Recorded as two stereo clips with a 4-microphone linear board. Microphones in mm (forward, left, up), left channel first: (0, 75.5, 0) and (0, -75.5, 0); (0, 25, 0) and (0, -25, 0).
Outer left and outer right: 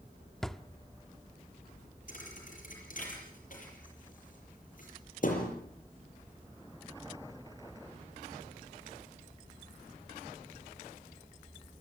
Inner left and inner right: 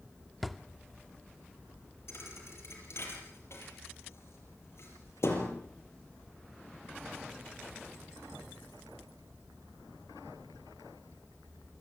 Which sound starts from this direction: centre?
A drawer, at 0.4 s.